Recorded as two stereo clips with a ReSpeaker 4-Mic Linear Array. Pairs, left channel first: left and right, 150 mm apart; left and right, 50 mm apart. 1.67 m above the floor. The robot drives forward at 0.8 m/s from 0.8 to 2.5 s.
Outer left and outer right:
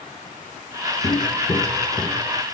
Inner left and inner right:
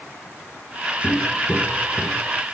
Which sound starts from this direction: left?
Footsteps, at 1.0 s.